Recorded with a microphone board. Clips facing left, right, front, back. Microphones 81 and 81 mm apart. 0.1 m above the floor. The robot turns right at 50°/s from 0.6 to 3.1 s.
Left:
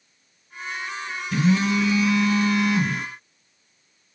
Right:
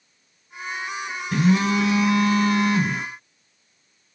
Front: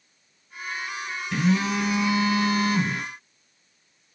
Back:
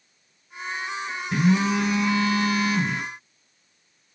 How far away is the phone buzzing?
About 2.5 m.